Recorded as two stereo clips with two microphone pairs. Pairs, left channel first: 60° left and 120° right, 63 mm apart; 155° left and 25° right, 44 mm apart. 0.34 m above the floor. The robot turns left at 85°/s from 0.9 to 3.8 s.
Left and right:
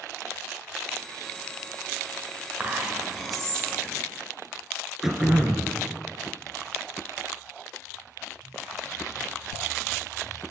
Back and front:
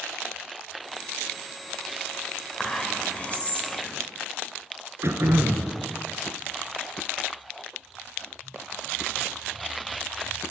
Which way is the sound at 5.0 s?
35° right.